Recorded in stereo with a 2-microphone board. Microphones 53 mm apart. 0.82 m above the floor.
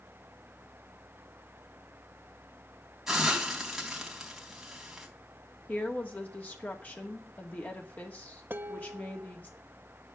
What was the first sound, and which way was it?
A hiss, 5° right (ahead or behind).